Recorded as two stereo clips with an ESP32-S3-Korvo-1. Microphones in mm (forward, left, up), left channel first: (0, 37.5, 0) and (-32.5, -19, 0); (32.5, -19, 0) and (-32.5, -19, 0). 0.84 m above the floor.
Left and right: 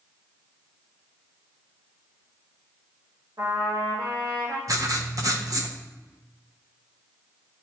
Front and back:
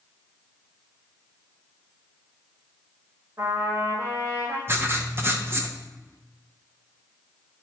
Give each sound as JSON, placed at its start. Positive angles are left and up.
{"t": 3.4, "sound": "a trumpet", "azimuth_deg": -140, "distance_m": 2.0}
{"t": 4.7, "sound": "writing", "azimuth_deg": -130, "distance_m": 0.8}